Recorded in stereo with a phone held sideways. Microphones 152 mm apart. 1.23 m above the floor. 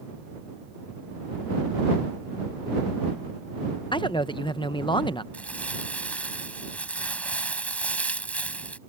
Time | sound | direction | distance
3.9 | a man speaking | 30° left (ahead or behind) | ?
5.3 | crumpling | 10° left (ahead or behind) | ?